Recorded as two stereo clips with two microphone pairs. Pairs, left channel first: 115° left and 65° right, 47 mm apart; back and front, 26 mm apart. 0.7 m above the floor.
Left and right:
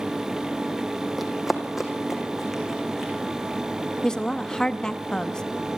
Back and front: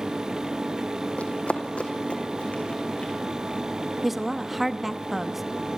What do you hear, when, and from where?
1.2 s running footsteps: 150° right, 2 m; by 3.1 s 145° right, 4 m
4.0 s a woman speaking: 75° left, 0.8 m